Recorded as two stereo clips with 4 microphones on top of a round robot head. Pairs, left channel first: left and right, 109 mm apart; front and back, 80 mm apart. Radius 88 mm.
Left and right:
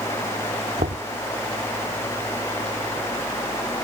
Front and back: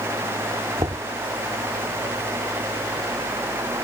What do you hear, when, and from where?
0.8 s knocking: 130° right